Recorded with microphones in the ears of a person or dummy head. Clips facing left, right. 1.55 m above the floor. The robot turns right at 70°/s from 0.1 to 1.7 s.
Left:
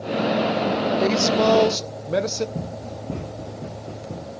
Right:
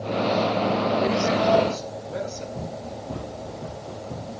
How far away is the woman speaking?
About 1.4 m.